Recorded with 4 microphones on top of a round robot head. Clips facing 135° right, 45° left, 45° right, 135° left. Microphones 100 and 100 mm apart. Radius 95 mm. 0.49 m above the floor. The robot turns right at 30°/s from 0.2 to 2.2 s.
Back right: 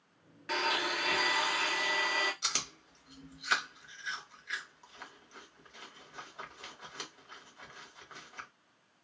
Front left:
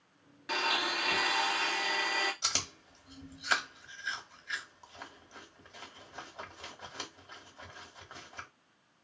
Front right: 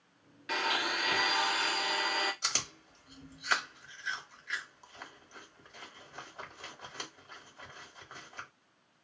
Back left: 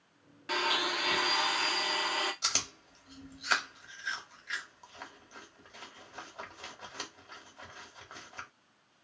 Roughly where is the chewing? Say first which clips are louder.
Front left 1 dB, back left 1 dB; left.